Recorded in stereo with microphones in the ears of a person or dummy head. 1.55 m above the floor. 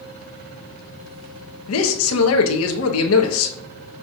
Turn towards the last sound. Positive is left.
turn(degrees=75)  # may be behind; listen again after turning